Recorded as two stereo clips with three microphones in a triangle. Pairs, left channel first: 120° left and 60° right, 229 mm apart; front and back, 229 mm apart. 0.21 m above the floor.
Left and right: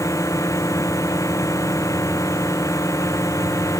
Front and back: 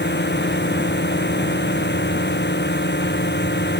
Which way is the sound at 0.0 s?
45° left.